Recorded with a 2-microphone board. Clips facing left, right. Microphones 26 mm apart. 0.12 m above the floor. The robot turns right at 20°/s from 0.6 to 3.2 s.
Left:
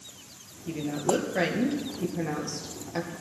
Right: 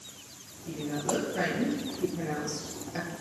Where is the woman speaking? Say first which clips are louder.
Left 4 dB; 40° left (ahead or behind), 3 m; by 3.1 s centre (ahead or behind), 3 m.